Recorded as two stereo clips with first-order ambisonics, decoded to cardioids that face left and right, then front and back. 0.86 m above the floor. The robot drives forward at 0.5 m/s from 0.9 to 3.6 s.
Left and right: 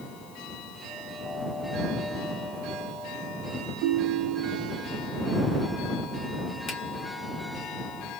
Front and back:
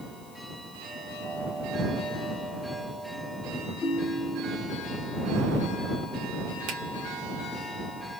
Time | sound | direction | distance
3.8 | a ringtone | 65° right | 1.0 m
6.7 | a finger snap | 155° left | 1.4 m